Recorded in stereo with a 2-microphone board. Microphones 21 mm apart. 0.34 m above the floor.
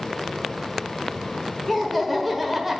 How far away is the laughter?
About 1.2 m.